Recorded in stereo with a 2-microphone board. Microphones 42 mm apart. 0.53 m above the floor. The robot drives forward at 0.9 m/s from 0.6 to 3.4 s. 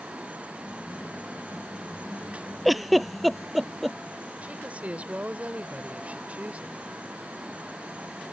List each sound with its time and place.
2.6 s a giggle: centre (ahead or behind)
4.4 s a woman speaking: 35° right (ahead or behind)